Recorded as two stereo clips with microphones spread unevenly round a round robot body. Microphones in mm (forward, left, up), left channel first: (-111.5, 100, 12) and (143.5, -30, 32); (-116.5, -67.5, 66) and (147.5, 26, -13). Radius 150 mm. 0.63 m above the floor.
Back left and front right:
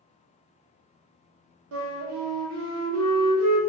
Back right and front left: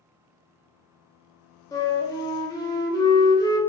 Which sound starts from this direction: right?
A flute, at 1.7 s.